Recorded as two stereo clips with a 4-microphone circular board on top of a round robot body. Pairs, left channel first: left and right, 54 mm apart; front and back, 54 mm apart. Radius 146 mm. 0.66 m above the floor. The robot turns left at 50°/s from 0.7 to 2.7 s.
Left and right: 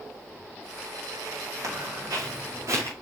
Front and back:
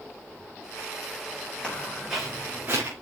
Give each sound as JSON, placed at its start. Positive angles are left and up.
{"t": 1.6, "sound": "footsteps", "azimuth_deg": -70, "distance_m": 9.0}